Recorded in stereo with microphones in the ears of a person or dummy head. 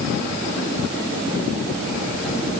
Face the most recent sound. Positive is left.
No sound to turn to.